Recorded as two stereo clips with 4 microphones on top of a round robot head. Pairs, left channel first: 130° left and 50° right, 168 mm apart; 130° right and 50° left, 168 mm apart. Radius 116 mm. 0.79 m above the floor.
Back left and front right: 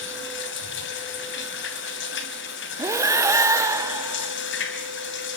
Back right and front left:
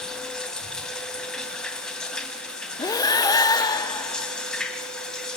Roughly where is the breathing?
Right.